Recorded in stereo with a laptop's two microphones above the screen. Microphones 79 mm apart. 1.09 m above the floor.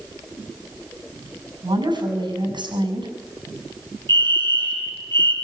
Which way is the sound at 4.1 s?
80° right.